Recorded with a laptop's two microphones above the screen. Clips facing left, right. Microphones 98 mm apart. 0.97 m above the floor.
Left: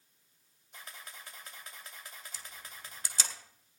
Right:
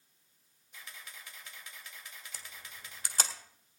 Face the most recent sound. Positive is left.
turn(degrees=-55)  # may be behind; listen again after turning